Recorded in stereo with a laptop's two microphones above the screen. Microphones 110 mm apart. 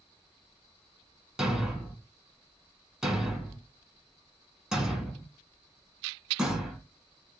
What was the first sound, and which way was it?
A thud, 5° right (ahead or behind).